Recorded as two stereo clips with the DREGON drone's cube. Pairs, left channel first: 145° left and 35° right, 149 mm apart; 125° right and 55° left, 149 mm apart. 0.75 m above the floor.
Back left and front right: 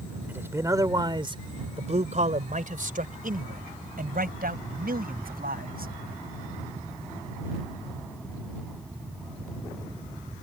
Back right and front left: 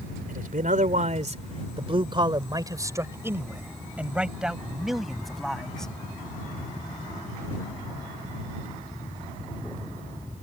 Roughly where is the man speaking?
Ahead left.